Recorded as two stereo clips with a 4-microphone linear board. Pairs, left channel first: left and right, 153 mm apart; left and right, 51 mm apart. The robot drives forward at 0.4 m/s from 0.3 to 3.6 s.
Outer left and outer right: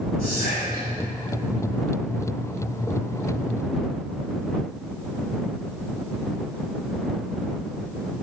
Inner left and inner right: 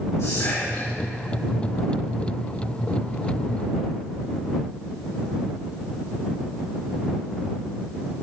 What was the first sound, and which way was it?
Whispering, 70° left (ahead or behind).